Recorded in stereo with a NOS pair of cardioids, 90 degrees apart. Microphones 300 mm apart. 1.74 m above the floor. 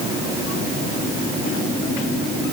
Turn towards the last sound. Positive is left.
No sound to turn to.